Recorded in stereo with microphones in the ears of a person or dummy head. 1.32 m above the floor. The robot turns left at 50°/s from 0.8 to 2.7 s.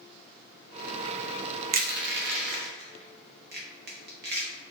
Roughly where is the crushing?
Right.